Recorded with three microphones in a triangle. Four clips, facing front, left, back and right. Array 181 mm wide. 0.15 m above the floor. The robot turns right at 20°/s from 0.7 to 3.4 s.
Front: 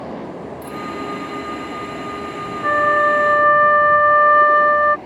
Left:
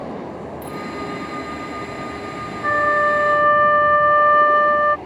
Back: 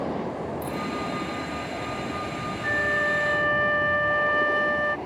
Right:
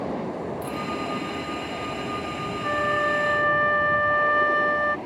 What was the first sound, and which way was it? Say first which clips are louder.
A dropped coin: left 1 dB, front 1 dB; 60° right.